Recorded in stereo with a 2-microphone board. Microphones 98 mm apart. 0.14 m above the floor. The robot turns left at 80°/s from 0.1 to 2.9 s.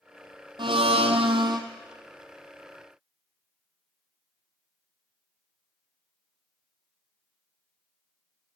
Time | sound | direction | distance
0.6 | a blender | 55° right | 0.9 m